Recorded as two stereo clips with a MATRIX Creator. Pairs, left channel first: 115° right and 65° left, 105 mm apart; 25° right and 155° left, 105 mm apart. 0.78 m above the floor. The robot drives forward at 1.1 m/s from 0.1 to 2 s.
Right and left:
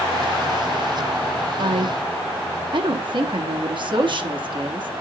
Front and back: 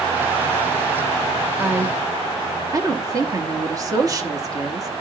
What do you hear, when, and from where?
1.6 s a woman speaking: 75° left, 1.0 m; by 4.9 s 105° left, 1.0 m